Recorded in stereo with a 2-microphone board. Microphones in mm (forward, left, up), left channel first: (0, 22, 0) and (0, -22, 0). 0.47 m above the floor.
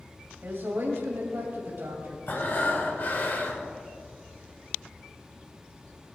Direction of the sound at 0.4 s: 65° right (ahead or behind).